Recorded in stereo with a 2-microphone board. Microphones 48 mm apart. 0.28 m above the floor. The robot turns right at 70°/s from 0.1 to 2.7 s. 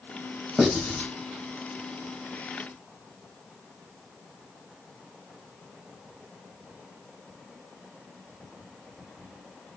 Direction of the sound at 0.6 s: 15° right (ahead or behind).